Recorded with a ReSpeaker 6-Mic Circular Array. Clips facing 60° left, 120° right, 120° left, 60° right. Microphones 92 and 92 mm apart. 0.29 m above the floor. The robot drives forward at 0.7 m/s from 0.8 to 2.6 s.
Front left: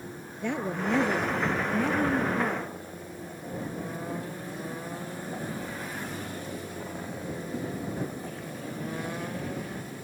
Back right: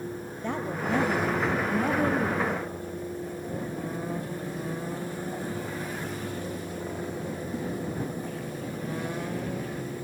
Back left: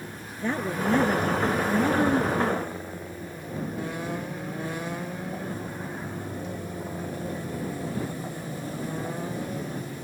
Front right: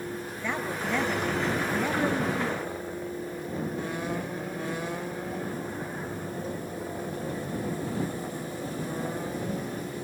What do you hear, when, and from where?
0.4 s a woman speaking: 60° left, 5 m; by 2.7 s 75° left, 4.5 m